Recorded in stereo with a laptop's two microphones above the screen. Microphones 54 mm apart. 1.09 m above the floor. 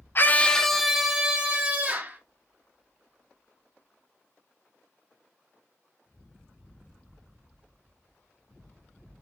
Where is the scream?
45° left (ahead or behind), 0.5 m; by 2.2 s 25° right (ahead or behind), 2 m.